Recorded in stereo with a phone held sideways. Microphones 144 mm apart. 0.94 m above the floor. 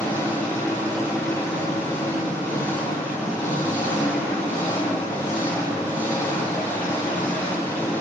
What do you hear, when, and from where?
0.0 s an engine running: 15° left (ahead or behind), 0.7 m